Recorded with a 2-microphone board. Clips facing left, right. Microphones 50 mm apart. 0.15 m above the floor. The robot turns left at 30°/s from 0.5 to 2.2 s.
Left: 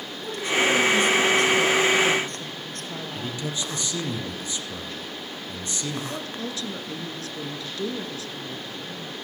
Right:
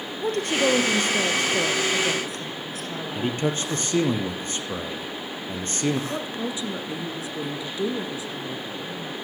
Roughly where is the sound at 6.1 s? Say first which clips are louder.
Right 3 dB; centre.